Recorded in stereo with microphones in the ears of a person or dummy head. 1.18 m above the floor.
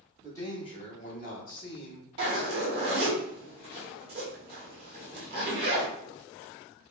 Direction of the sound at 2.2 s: 25° right (ahead or behind).